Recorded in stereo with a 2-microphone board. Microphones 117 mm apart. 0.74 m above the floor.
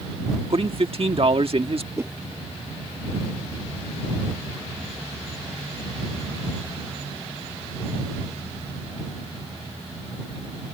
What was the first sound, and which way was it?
A man speaking, 55° right (ahead or behind).